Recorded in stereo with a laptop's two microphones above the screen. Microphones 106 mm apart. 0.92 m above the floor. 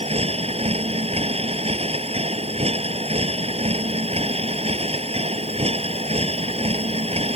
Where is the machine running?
85° right.